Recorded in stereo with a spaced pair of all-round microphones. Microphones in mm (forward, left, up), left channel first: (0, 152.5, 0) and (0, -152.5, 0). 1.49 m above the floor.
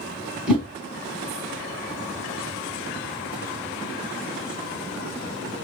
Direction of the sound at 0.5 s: 5° right (ahead or behind).